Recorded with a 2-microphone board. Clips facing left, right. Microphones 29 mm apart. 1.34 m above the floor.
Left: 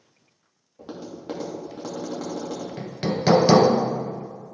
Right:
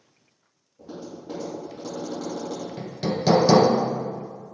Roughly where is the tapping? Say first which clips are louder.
Left 1 dB; left.